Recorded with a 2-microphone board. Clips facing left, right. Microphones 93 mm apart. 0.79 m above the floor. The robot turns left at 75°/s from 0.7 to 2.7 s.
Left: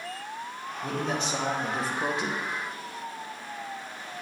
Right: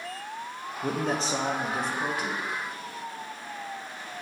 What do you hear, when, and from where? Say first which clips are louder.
0.8 s a man speaking: right 2 dB; 105° right, 0.7 m; by 2.4 s 135° left, 0.7 m